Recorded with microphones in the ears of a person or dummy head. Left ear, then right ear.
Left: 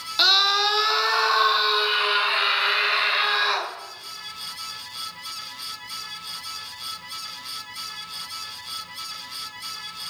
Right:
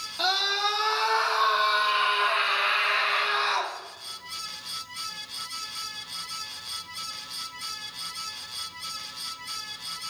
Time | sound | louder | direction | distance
0.2 | a scream | left 7 dB | 50° left (ahead or behind) | 2.5 m